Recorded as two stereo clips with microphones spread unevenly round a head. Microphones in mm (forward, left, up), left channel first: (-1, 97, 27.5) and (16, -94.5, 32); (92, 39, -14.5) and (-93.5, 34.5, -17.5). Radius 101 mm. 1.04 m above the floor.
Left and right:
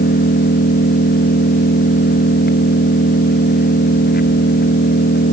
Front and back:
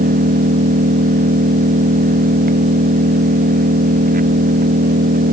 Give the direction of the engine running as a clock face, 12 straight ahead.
7 o'clock.